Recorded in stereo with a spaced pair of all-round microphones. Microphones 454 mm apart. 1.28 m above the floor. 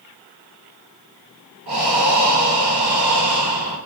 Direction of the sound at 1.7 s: 65° right (ahead or behind).